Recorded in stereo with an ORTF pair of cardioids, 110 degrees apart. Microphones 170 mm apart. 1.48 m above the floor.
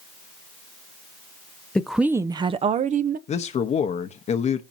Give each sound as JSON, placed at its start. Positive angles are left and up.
{"t": 1.8, "sound": "a woman speaking", "azimuth_deg": 5, "distance_m": 0.6}
{"t": 3.3, "sound": "a man speaking", "azimuth_deg": 40, "distance_m": 0.9}